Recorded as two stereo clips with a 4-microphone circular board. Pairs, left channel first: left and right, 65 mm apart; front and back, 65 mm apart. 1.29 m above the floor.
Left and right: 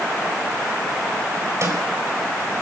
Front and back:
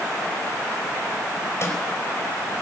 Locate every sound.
1.6 s a snare drum: 50° right, 4.5 m